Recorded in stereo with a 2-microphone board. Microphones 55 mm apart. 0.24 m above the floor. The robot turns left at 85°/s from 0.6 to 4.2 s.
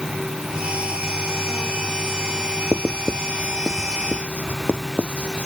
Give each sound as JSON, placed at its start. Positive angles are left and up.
{"t": 2.7, "sound": "writing", "side_deg": -80}